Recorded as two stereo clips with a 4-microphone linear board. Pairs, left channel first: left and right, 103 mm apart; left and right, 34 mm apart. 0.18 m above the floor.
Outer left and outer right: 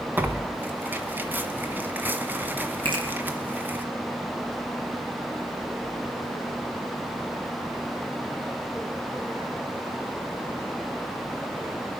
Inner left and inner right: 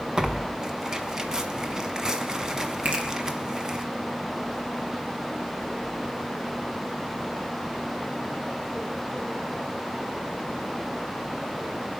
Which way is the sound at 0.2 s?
20° right (ahead or behind).